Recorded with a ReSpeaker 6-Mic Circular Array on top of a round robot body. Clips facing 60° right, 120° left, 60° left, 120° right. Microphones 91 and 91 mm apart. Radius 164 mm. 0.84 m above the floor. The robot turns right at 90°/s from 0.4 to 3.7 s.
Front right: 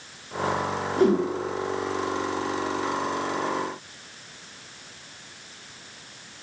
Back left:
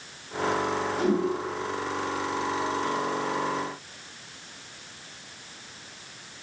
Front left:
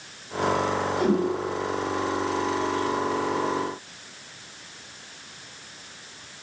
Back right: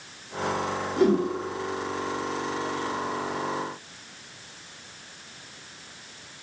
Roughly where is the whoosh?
Right.